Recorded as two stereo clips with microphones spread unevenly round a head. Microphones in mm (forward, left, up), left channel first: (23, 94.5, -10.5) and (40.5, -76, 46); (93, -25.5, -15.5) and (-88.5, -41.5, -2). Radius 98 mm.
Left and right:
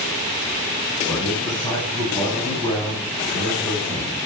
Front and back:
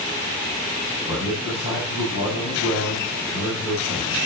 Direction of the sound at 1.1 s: 25° left.